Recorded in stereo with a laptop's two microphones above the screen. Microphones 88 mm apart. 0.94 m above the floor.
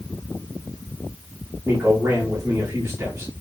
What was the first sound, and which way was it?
A man speaking, 35° right (ahead or behind).